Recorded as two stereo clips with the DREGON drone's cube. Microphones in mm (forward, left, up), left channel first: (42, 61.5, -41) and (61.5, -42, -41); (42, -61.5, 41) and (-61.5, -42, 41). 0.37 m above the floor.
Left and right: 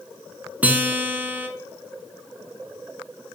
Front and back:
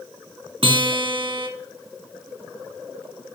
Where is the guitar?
155° right, 1.0 m.